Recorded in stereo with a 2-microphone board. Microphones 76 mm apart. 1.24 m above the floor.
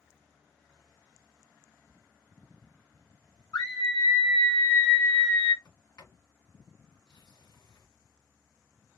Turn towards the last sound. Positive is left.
turn(degrees=70)  # may be behind; listen again after turning